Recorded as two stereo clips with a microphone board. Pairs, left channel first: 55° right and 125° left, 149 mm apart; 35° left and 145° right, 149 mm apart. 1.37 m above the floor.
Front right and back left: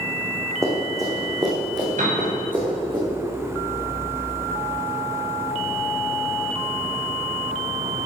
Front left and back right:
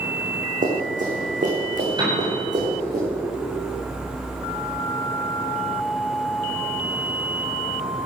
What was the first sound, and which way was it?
Running footsteps, 165° right.